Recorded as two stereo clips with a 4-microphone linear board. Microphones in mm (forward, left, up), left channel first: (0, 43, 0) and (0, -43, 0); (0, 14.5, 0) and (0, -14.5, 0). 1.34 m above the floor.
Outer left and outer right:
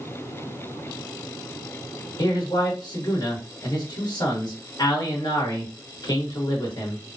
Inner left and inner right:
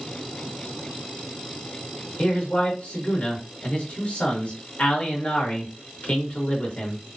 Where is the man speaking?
55° left (ahead or behind), 1.3 m.